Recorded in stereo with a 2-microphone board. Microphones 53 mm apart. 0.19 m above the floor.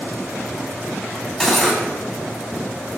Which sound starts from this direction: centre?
Cutlery clinking, at 1.4 s.